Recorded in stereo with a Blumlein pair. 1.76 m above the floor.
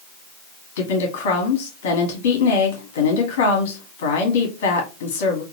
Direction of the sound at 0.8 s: 55° left.